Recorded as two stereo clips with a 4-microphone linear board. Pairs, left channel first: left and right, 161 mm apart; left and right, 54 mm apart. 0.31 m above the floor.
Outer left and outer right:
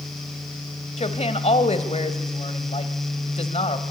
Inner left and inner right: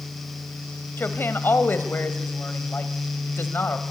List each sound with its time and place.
1.0 s a woman speaking: 45° left (ahead or behind), 1.3 m